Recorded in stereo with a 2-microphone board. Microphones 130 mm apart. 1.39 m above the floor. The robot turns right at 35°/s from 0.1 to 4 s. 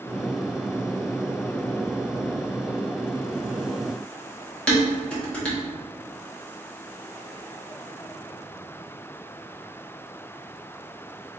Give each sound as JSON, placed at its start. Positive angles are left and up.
{"t": 4.7, "sound": "dishes clattering", "side_deg": 5, "distance_m": 1.4}